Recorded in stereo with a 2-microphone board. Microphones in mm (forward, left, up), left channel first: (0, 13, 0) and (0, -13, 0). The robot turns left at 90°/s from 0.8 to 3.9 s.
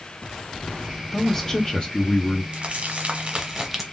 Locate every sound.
1.1 s a man speaking: centre (ahead or behind), 1.0 m; by 2.4 s 25° left (ahead or behind), 1.0 m
2.5 s crumpling: 55° right, 1.1 m; by 3.8 s 170° right, 1.1 m